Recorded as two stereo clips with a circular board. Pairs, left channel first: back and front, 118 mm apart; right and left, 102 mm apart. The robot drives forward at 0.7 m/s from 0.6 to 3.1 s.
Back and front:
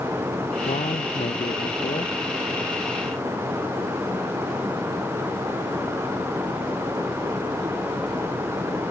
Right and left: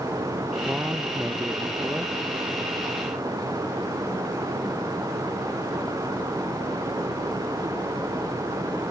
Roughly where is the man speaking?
Behind.